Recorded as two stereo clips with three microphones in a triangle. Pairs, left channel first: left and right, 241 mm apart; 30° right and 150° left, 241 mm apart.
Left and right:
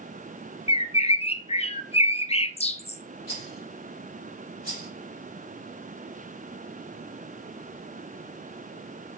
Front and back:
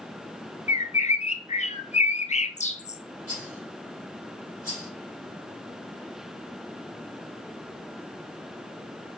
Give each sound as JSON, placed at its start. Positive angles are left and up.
{"t": 0.7, "sound": "a bird", "azimuth_deg": 25, "distance_m": 0.6}
{"t": 3.3, "sound": "a rattle", "azimuth_deg": -45, "distance_m": 4.5}